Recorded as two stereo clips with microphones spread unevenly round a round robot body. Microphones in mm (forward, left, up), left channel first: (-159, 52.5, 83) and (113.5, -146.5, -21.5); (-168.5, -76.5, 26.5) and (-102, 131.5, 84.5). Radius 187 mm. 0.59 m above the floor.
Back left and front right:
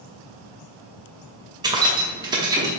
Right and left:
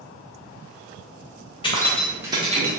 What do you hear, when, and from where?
1.6 s keys jangling: 85° right, 0.6 m; by 2.8 s 20° left, 0.7 m